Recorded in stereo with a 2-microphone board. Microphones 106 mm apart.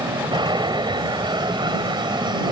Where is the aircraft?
45° right (ahead or behind).